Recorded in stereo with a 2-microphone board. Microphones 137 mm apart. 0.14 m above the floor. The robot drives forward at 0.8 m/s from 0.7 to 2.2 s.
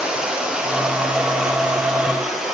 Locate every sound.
0.0 s running water: 10° right (ahead or behind), 2.5 m; by 2.5 s 5° right (ahead or behind), 3.5 m